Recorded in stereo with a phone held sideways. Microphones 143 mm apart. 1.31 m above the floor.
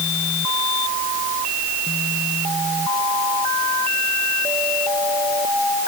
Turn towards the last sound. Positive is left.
No sound to turn to.